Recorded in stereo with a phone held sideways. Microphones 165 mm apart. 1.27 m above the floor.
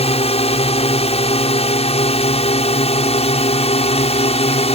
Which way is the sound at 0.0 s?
40° left (ahead or behind).